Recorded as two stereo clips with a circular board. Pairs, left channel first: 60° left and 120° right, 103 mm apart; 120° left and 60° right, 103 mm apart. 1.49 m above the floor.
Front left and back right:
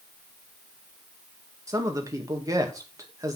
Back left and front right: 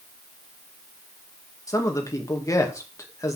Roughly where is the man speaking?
Behind.